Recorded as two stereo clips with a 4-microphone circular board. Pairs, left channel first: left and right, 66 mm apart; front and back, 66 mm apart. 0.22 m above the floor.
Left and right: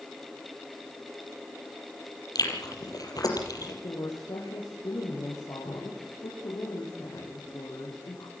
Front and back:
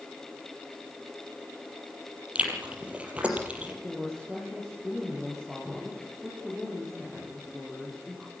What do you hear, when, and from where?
2.4 s chewing: 110° left, 5 m
3.8 s a woman speaking: 90° left, 7 m